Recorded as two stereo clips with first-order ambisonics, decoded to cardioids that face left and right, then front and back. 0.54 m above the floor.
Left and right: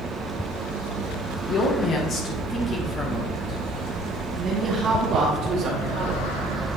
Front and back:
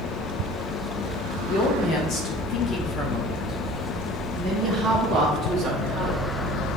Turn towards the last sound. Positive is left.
turn(degrees=-120)